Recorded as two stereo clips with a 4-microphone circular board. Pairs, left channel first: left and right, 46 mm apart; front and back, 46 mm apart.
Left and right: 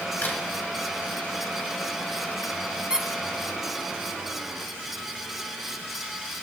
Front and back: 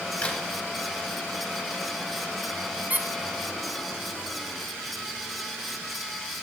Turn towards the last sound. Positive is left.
turn(degrees=-155)